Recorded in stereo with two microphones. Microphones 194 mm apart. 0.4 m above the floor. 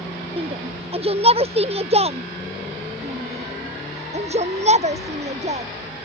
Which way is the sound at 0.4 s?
30° right (ahead or behind).